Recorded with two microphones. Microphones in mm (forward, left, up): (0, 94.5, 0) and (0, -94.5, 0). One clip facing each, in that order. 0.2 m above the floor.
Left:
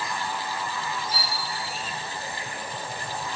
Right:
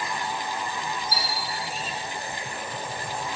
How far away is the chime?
About 2 m.